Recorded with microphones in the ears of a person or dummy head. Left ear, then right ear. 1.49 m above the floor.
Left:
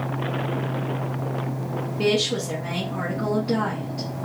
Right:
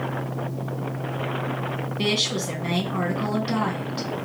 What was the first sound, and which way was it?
A woman speaking, 60° right (ahead or behind).